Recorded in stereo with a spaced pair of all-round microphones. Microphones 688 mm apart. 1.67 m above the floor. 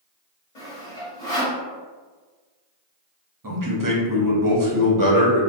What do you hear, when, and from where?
0.6 s sawing: 60° left (ahead or behind), 1.1 m
3.4 s a man speaking: 30° right (ahead or behind), 0.6 m